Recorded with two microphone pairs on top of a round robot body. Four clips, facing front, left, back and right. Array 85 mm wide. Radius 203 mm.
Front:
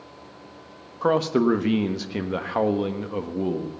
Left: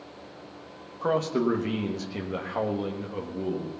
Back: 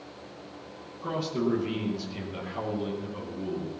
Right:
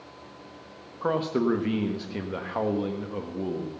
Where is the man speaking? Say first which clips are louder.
Even, front 9 dB; 5° right, 1.5 m.